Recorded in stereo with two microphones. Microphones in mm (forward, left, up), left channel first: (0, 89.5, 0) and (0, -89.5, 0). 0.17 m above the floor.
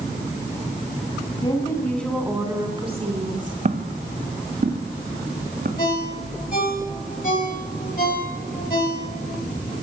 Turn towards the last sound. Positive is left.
turn(degrees=50)  # may be behind; listen again after turning